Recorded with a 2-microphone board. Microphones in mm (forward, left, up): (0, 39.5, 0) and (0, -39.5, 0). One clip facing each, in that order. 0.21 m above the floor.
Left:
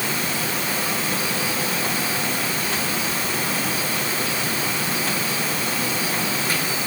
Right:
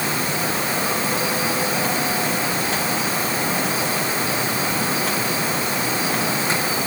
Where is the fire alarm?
No fire alarm in this recording.